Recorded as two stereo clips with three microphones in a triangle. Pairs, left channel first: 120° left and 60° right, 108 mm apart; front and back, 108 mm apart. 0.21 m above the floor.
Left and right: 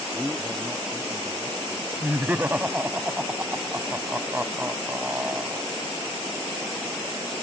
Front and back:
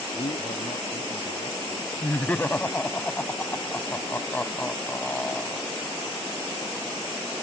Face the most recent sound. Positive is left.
turn(degrees=-30)